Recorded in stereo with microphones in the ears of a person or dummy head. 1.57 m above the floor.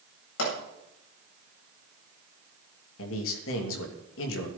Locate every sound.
0.4 s a pop: 70° left (ahead or behind), 8.5 m
3.0 s a man speaking: 80° left, 3 m